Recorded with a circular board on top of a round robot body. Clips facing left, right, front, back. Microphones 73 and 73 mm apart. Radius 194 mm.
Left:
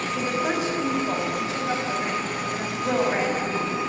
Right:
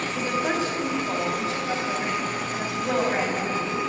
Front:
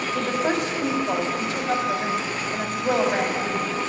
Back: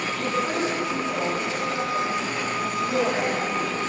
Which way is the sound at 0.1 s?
10° left.